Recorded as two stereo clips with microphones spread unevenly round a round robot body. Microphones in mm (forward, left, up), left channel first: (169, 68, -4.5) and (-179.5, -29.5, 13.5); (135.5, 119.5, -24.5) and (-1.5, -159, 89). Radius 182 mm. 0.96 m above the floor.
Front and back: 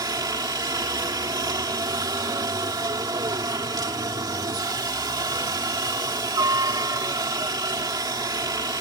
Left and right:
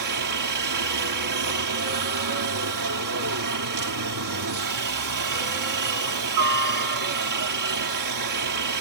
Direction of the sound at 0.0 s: 85° right.